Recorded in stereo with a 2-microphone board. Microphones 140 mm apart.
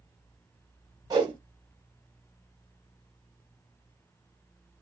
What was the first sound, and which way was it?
A whoosh, 30° right (ahead or behind).